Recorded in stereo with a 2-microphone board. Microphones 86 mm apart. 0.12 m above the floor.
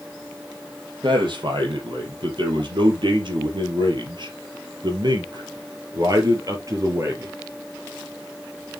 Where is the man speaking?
60° right (ahead or behind), 4.5 m; by 7.3 s 35° right (ahead or behind), 3 m.